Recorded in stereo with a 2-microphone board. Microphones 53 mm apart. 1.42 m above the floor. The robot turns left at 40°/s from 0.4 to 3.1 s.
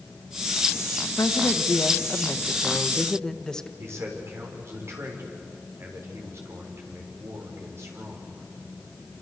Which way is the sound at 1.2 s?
90° left.